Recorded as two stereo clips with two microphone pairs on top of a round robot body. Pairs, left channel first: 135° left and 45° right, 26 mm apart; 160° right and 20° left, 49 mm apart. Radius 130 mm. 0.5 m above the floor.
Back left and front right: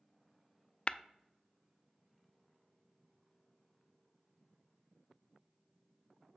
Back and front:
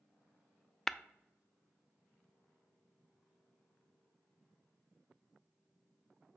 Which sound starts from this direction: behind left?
Tapping, at 0.9 s.